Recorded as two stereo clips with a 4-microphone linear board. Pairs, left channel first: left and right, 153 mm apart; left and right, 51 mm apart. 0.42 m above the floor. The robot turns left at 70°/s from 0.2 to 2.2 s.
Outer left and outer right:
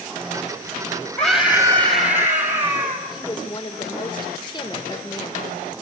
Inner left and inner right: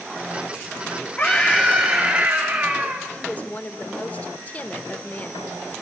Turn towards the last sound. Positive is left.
turn(degrees=30)  # may be behind; listen again after turning